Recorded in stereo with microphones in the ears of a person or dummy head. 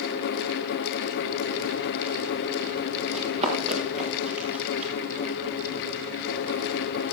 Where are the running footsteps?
35° right (ahead or behind), 5 m; by 4.9 s 30° right (ahead or behind), 7.5 m.